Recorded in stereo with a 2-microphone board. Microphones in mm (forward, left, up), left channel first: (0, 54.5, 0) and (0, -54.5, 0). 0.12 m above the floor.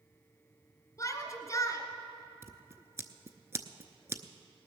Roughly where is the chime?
I don't hear a chime.